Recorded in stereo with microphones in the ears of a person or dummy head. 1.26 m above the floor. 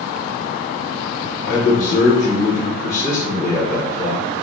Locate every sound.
1.5 s a man speaking: 50° left (ahead or behind), 0.9 m